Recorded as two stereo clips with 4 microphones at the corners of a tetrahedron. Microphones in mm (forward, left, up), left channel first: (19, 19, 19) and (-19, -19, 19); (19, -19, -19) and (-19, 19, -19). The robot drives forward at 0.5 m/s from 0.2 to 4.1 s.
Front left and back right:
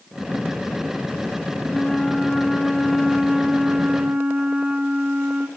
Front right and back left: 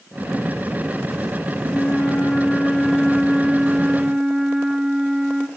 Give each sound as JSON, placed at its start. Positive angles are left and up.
{"t": 1.6, "sound": "a flute", "azimuth_deg": -10, "distance_m": 1.3}